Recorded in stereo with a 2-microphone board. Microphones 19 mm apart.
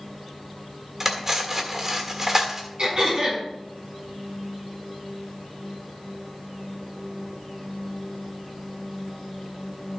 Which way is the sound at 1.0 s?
20° right (ahead or behind).